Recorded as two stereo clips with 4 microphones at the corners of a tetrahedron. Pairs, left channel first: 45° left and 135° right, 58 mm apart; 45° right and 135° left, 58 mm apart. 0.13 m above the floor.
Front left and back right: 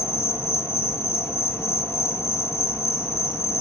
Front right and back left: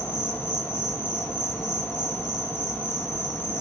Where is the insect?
5° left, 1.1 m.